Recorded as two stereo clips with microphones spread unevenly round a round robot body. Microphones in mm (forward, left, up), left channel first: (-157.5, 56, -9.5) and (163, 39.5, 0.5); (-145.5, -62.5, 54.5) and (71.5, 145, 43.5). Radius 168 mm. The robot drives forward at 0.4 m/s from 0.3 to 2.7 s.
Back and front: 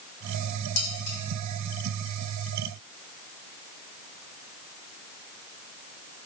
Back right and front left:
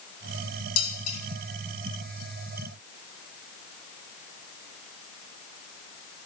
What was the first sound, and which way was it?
Dishes clattering, 120° right.